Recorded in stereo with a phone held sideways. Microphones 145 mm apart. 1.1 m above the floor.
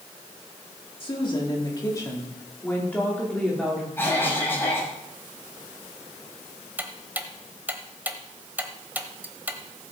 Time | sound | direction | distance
1.0 | a woman speaking | 40° left (ahead or behind) | 3 m
4.0 | a cough | 15° left (ahead or behind) | 6.5 m
6.8 | ticking | 15° right (ahead or behind) | 1.1 m